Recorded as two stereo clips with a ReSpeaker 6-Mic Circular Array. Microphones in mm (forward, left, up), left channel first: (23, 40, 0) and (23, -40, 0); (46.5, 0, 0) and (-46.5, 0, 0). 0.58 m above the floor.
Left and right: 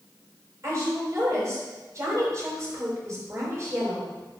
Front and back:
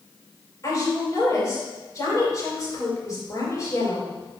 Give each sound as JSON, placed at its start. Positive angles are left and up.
{"t": 0.6, "sound": "a woman speaking", "azimuth_deg": -50, "distance_m": 3.0}